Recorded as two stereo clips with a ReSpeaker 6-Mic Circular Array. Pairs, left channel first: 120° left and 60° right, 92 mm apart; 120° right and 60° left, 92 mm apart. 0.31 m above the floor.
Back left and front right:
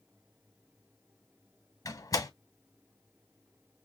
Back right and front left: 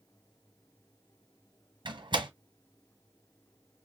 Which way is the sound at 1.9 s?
75° left.